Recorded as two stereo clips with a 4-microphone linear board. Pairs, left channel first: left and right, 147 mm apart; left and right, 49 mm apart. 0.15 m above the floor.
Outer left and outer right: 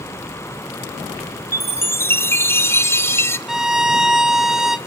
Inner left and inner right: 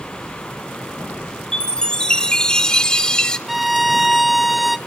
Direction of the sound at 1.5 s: 15° left (ahead or behind).